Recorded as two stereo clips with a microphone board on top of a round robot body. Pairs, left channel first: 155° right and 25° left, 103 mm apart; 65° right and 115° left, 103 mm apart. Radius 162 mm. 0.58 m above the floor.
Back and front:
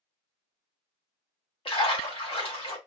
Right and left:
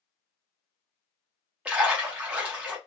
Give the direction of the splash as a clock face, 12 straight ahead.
6 o'clock.